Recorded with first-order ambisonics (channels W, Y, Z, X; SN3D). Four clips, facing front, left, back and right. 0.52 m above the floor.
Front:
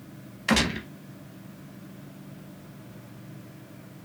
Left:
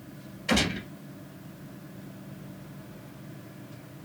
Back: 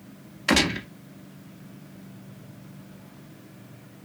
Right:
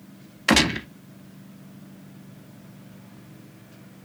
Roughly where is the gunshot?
Right.